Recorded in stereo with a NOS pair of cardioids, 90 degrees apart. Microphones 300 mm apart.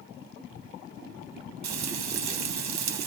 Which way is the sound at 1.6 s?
65° right.